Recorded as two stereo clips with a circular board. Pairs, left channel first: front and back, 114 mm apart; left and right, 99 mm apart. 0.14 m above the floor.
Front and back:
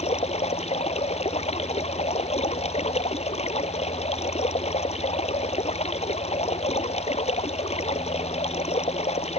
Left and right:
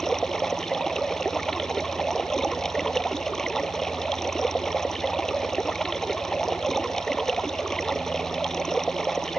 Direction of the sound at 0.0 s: 5° left.